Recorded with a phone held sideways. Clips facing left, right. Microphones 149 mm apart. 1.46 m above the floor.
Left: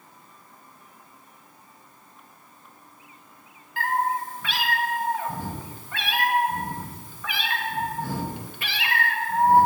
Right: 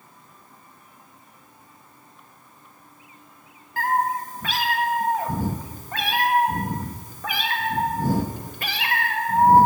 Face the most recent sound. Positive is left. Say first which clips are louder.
# right 2 dB
turn(degrees=-40)  # may be behind; listen again after turning